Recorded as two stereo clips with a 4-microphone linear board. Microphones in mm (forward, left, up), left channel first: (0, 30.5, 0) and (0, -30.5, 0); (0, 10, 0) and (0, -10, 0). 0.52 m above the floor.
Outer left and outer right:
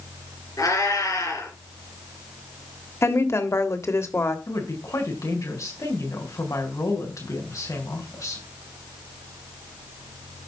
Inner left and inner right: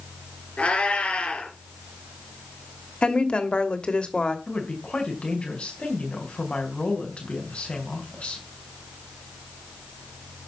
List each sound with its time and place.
0.6 s a cat meowing: 75° left (ahead or behind), 6 m
3.0 s a woman speaking: 50° left (ahead or behind), 1.7 m
4.5 s a woman speaking: 65° left (ahead or behind), 4 m